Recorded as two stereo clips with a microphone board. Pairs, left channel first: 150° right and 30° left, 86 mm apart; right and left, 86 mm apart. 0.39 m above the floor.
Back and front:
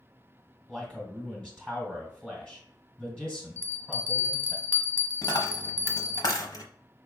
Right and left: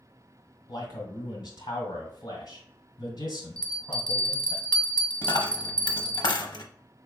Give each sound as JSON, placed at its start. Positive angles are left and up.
{"t": 0.7, "sound": "a man speaking", "azimuth_deg": -70, "distance_m": 1.5}
{"t": 3.6, "sound": "a bell", "azimuth_deg": -15, "distance_m": 0.9}
{"t": 5.2, "sound": "a dropped coin", "azimuth_deg": -115, "distance_m": 0.7}